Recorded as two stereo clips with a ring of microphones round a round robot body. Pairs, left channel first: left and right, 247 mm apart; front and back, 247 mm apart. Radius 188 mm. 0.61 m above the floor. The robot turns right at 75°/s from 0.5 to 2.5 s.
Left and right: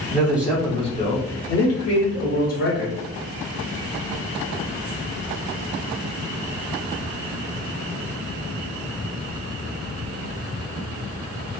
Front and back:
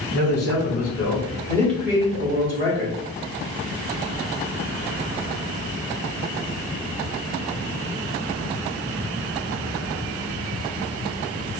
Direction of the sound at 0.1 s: 5° right.